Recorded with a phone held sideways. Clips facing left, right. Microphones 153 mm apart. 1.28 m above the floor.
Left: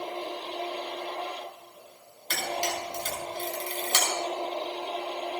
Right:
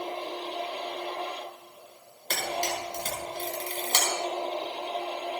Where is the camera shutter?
50° right (ahead or behind), 5 m.